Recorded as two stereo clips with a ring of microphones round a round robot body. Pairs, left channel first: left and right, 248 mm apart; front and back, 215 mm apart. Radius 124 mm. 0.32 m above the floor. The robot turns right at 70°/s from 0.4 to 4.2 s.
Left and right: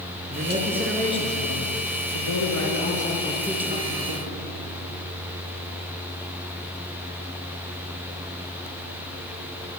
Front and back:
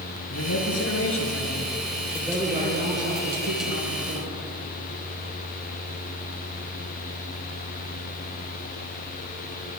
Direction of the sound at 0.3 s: 30° right.